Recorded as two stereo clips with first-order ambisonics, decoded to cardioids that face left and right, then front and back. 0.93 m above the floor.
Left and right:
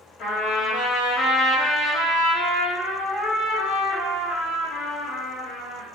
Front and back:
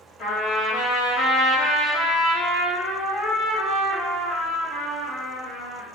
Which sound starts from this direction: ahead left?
A trumpet, at 0.2 s.